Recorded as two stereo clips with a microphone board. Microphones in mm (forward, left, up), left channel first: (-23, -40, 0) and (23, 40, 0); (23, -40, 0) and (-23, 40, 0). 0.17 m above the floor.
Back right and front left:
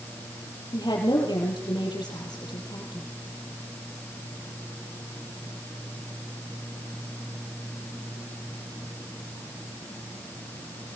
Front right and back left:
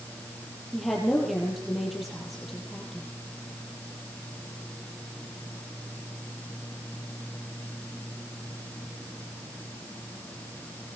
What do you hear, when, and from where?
0.7 s a woman speaking: 150° right, 5 m